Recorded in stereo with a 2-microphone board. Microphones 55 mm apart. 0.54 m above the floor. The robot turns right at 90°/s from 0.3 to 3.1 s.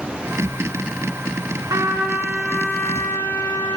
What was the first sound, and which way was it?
A trumpet, 75° right.